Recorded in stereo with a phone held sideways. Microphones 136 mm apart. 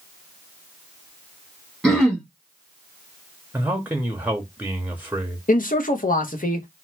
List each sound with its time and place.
1.8 s throat clearing: 5° left (ahead or behind), 1.0 m
3.5 s a man speaking: 15° right (ahead or behind), 0.6 m
5.5 s a man speaking: 85° left, 0.6 m